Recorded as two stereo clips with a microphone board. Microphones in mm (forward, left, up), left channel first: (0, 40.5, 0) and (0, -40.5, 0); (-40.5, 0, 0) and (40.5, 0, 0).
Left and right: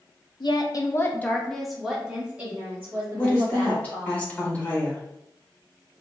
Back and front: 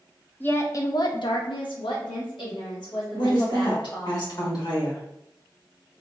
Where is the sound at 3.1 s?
160° left, 1.2 m.